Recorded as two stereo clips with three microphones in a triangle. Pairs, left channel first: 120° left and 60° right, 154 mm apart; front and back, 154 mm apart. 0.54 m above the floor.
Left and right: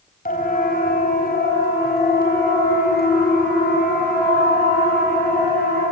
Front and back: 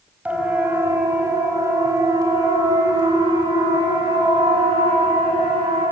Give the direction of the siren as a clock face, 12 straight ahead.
9 o'clock.